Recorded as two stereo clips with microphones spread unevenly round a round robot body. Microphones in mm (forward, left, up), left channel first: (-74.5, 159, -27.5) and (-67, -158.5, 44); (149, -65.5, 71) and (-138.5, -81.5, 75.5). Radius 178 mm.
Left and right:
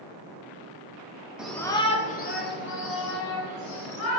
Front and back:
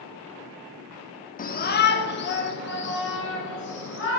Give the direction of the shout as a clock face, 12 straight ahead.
11 o'clock.